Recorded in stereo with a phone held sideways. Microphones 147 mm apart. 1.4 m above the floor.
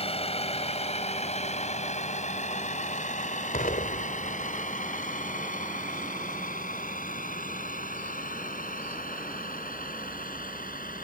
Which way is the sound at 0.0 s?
45° left (ahead or behind).